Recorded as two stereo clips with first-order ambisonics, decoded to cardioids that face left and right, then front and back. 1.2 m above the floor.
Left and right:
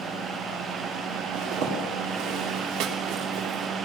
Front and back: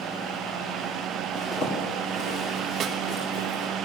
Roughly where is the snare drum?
Behind right.